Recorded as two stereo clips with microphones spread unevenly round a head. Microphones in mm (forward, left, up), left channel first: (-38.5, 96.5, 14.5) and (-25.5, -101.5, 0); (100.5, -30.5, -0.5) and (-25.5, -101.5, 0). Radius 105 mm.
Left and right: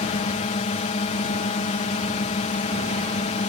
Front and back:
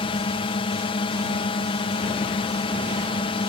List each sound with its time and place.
0.0 s a drone: 55° left